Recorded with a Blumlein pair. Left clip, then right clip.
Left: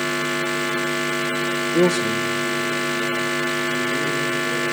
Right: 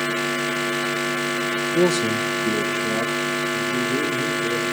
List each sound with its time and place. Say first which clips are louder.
1.7 s a man speaking: left 1 dB; 10° left, 1.1 m; by 4.7 s 70° right, 4.5 m